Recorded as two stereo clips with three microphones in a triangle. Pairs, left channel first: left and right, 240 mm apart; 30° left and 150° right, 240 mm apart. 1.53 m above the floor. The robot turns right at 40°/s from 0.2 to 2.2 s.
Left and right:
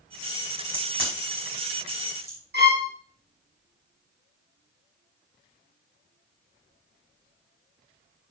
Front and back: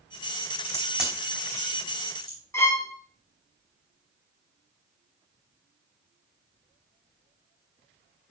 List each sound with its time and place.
0.7 s a crack: 75° right, 5 m; by 2.4 s 15° right, 5 m
2.5 s a violin: 50° right, 1.7 m